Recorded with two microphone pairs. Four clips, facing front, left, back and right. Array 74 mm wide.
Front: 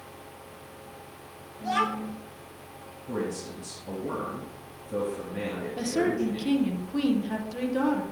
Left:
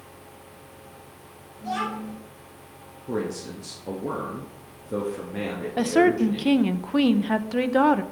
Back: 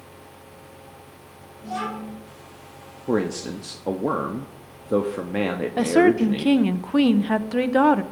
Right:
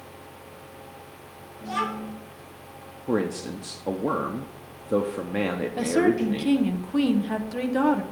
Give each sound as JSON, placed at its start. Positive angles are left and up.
{"t": 1.6, "sound": "a child speaking", "azimuth_deg": 0, "distance_m": 7.5}
{"t": 3.1, "sound": "a man speaking", "azimuth_deg": -155, "distance_m": 1.0}
{"t": 5.8, "sound": "a woman speaking", "azimuth_deg": 150, "distance_m": 0.8}